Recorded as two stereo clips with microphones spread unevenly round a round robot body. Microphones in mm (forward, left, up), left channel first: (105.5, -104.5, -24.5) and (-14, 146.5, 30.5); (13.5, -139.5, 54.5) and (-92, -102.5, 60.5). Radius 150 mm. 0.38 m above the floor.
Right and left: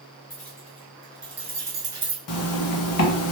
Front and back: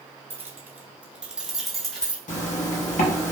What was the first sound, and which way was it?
Keys jangling, 130° right.